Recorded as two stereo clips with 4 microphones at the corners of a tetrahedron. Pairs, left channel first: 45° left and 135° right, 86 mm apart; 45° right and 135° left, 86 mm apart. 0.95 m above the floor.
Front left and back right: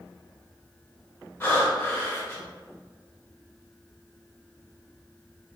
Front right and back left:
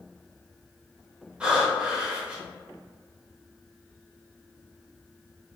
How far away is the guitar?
I don't hear a guitar.